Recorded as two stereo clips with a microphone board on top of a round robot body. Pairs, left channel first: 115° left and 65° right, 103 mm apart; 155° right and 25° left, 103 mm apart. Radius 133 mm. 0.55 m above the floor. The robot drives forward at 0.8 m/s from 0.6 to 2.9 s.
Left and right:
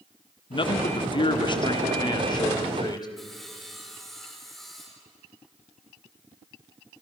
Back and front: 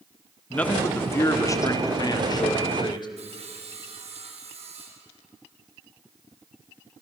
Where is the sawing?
25° left, 4.5 m.